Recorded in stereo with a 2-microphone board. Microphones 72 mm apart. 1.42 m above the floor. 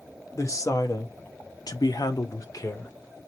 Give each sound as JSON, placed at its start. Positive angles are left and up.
{"t": 0.3, "sound": "a woman speaking", "side_deg": 50, "distance_m": 1.3}